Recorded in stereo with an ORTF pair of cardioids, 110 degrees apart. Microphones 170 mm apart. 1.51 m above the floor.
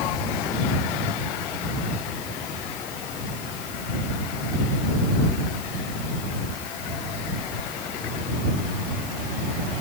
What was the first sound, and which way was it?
Only background noise.